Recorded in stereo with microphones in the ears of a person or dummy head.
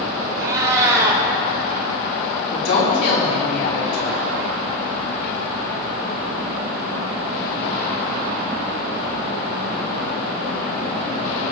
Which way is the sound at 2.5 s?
75° left (ahead or behind).